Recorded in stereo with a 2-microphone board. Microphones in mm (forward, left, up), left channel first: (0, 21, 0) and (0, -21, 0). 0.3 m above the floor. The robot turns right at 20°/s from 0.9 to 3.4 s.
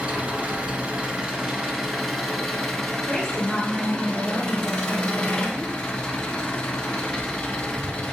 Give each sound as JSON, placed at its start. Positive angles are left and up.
{"t": 0.0, "sound": "an engine running", "azimuth_deg": -30, "distance_m": 0.9}
{"t": 3.1, "sound": "a woman speaking", "side_deg": -10, "distance_m": 1.5}